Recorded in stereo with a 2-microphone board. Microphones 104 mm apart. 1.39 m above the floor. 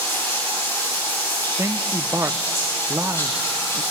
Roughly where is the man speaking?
Right.